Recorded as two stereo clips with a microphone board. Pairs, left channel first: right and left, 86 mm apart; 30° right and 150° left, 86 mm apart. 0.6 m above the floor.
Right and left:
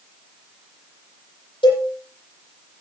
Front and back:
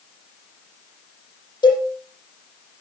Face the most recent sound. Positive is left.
turn(degrees=-70)